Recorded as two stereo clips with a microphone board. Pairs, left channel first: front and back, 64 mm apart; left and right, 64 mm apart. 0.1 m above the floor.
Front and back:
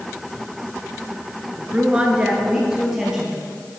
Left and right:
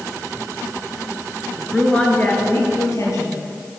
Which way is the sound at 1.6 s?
170° right.